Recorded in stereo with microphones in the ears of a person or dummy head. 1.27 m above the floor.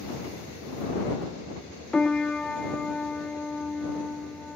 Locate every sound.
1.9 s a piano: 10° left (ahead or behind)